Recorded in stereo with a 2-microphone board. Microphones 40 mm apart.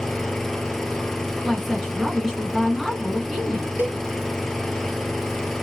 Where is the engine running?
15° left (ahead or behind), 0.7 m.